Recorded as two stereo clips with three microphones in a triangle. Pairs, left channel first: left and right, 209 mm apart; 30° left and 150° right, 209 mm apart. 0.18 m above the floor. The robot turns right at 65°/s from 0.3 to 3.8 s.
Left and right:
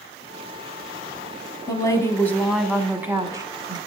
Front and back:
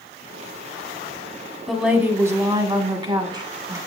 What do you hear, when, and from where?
1.7 s a woman speaking: 120° left, 1.0 m; by 3.8 s 105° right, 1.0 m